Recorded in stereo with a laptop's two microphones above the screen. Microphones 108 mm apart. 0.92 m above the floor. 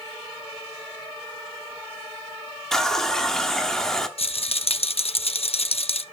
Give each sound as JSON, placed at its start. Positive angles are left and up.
{"t": 2.7, "sound": "a running tap", "side_deg": 5, "distance_m": 1.4}
{"t": 4.2, "sound": "a rattle", "side_deg": 65, "distance_m": 0.6}